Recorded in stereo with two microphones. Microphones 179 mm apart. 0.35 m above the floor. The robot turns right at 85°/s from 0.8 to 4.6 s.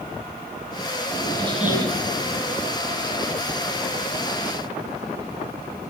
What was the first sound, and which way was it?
A squeak, 155° left.